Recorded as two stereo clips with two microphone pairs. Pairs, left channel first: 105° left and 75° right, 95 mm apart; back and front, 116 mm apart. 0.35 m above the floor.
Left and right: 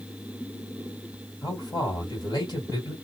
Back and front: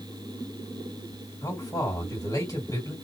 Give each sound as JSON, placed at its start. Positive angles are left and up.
{"t": 1.4, "sound": "a man speaking", "azimuth_deg": 130, "distance_m": 2.5}